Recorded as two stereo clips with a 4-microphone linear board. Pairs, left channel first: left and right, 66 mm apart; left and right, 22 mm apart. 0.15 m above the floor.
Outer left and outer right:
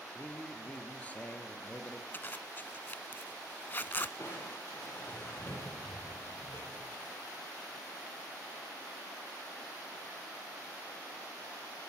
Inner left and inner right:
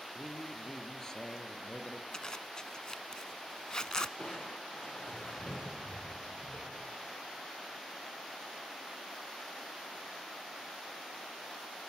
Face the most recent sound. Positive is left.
turn(degrees=40)  # may be behind; listen again after turning